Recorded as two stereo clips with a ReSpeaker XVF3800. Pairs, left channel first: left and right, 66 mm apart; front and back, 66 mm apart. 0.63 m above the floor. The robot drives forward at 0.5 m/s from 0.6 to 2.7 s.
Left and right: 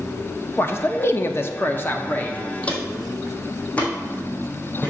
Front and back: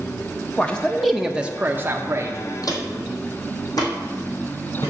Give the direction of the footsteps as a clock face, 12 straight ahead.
11 o'clock.